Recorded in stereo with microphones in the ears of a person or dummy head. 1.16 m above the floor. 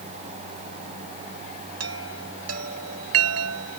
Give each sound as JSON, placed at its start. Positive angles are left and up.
{"t": 1.8, "sound": "a chime", "side_deg": -80}